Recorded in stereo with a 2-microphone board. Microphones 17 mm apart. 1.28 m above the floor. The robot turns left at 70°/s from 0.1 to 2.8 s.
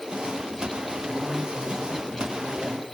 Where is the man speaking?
30° left, 7.5 m; by 2.8 s 95° right, 7.5 m.